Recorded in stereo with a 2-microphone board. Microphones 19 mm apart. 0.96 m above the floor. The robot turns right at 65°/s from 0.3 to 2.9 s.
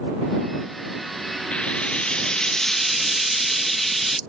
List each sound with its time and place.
1.5 s frying: 80° left; by 4.2 s 170° left